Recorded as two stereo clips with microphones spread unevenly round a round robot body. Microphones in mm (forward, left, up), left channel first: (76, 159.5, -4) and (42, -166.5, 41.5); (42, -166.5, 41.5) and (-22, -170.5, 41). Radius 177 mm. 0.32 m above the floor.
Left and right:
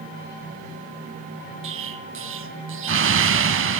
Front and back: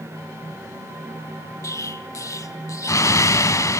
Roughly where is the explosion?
Ahead right.